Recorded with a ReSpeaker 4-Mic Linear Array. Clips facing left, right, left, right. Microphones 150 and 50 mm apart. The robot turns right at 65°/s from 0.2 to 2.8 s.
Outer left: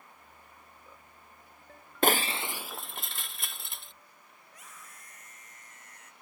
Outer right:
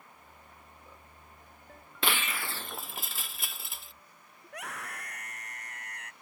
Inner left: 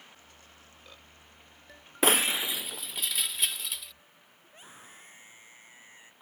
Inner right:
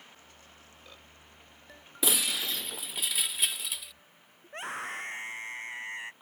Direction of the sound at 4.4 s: 75° right (ahead or behind).